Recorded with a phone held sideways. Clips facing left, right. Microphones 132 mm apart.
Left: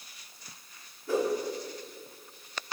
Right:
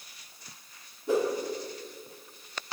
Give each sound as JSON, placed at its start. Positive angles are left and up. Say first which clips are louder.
{"t": 1.1, "sound": "a whoosh", "louder": "right 2 dB", "side_deg": -20, "distance_m": 2.5}